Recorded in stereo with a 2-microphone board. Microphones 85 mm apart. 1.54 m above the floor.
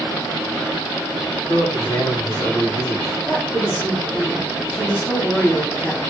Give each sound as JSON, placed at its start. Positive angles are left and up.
{"t": 1.5, "sound": "a man speaking", "side_deg": 80, "distance_m": 1.2}
{"t": 3.2, "sound": "a woman speaking", "side_deg": 20, "distance_m": 0.9}